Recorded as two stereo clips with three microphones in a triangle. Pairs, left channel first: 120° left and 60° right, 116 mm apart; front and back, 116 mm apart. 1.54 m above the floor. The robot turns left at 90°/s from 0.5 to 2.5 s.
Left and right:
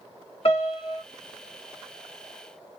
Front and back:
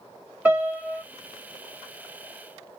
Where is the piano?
105° left, 1.8 m; by 1.0 s 60° left, 1.8 m.